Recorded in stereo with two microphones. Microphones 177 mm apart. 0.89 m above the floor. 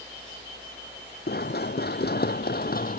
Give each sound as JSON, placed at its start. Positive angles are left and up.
{"t": 1.3, "sound": "running footsteps", "side_deg": 60}